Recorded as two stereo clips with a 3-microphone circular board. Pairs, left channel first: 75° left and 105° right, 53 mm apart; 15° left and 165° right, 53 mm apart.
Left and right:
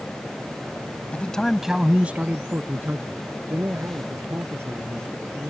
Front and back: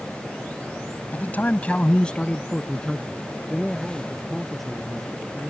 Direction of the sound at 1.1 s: 35° left.